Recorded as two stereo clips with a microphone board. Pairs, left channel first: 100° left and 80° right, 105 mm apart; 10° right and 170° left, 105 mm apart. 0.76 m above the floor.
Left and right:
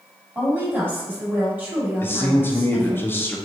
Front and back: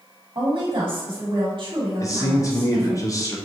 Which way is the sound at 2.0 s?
40° left.